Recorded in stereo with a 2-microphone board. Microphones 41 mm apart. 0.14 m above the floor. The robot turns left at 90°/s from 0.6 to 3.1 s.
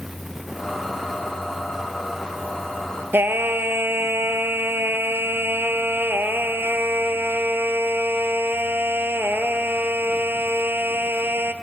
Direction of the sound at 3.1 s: 70° right (ahead or behind).